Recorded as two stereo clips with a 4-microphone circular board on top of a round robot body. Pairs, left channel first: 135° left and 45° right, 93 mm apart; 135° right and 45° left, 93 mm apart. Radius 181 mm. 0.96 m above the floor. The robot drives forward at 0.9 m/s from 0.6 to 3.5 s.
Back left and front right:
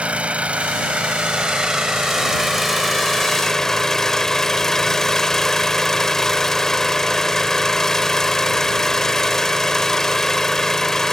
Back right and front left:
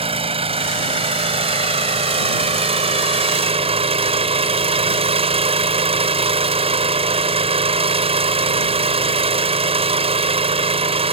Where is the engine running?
30° left; by 11.1 s 50° left.